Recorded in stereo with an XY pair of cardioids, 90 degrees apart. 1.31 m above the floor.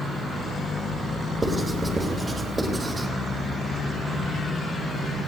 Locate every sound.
1.4 s writing: 20° right, 3 m